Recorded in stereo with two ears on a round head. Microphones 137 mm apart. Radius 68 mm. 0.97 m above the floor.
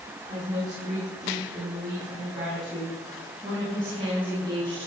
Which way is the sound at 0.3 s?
25° right (ahead or behind).